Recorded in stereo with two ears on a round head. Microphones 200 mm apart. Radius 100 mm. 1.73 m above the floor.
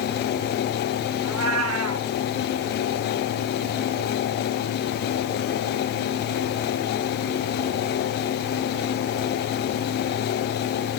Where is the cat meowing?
70° right (ahead or behind), 5.5 m.